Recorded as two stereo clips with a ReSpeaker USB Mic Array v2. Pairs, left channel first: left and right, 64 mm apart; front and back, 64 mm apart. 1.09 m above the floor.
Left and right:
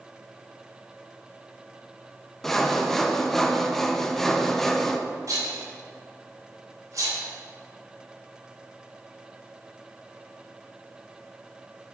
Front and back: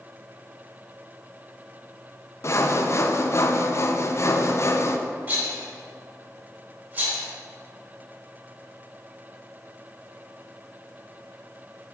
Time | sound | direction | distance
2.4 | sawing | 5° left | 0.5 m
5.3 | a rattle | 115° right | 2.5 m